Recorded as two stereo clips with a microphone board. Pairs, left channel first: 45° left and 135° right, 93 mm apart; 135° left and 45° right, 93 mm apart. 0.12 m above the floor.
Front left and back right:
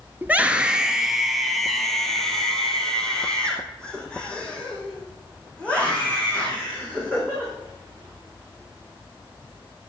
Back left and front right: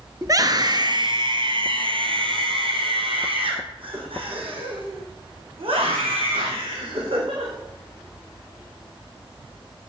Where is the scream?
70° right, 1.6 m; by 7.5 s 30° right, 8 m.